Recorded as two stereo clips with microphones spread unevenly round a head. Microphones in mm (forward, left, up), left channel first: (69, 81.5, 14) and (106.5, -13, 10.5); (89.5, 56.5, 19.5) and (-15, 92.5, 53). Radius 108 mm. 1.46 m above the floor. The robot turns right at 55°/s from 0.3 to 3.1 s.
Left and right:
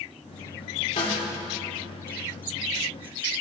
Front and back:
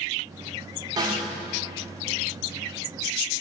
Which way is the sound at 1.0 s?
140° left.